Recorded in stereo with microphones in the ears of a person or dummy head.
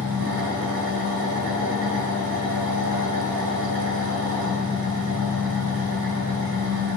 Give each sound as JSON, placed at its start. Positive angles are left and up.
{"t": 0.0, "sound": "an engine running", "side_deg": -60, "distance_m": 2.0}